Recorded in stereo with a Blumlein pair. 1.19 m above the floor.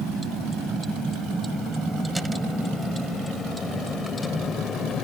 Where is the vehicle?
15° right; by 5.0 s 20° left.